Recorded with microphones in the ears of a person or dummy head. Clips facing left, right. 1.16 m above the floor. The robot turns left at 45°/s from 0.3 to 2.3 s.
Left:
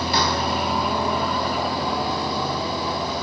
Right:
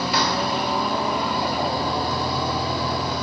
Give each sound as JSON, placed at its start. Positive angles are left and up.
{"t": 0.0, "sound": "running water", "azimuth_deg": 40, "distance_m": 4.0}